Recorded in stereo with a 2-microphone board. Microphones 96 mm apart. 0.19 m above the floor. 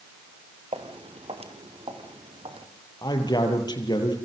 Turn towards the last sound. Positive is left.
turn(degrees=45)  # may be behind; listen again after turning